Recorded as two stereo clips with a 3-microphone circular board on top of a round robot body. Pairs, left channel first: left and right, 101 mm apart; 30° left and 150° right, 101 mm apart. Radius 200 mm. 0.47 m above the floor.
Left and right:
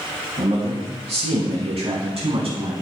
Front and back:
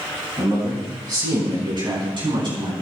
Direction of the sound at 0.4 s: 95° right.